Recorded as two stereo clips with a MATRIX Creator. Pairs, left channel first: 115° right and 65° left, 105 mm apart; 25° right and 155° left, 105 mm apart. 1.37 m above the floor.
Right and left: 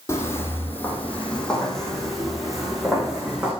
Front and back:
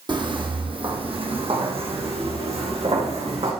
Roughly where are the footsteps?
Behind.